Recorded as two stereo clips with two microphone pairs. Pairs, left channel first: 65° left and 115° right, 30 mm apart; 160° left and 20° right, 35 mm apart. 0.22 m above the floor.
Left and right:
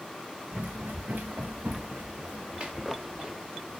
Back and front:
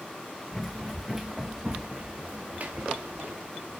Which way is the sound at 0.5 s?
120° right.